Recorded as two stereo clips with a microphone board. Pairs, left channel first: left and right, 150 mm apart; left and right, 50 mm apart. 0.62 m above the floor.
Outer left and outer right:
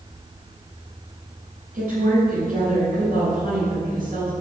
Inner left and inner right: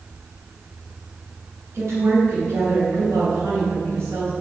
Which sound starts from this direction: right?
A woman speaking, at 1.7 s.